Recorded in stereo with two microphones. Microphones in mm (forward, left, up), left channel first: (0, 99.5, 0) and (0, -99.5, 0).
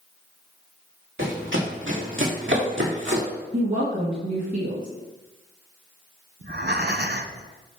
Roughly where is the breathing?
Right.